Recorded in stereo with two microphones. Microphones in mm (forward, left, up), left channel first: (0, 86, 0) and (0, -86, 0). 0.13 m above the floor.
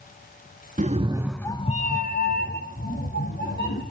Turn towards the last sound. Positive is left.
turn(degrees=80)